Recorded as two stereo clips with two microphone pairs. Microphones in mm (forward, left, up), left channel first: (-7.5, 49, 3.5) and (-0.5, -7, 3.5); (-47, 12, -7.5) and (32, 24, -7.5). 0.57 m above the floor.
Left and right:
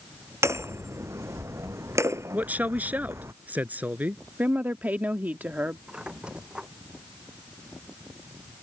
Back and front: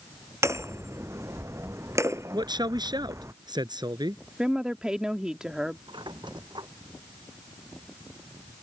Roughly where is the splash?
I don't hear a splash.